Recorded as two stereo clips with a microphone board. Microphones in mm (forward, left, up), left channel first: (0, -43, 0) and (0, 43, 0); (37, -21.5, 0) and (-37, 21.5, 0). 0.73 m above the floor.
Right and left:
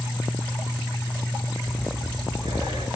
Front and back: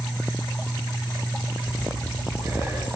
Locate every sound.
1.6 s breathing: 95° left, 9.5 m